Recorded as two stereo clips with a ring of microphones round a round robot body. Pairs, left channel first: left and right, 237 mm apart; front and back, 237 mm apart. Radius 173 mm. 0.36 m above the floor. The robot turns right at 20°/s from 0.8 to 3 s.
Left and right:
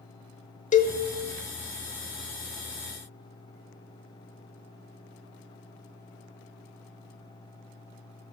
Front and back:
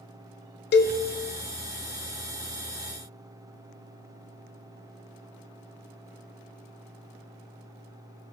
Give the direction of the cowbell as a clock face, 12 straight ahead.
11 o'clock.